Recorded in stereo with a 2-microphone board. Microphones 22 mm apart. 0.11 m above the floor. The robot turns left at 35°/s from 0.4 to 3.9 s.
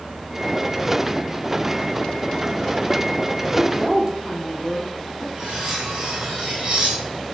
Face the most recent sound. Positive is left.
turn(degrees=-60)  # may be behind; listen again after turning